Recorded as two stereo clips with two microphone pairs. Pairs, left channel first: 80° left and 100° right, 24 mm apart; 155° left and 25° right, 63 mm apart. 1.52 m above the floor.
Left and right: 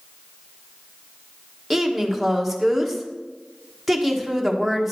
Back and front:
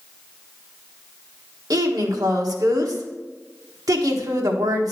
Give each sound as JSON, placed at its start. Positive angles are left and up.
{"t": 1.7, "sound": "a woman speaking", "azimuth_deg": -10, "distance_m": 1.3}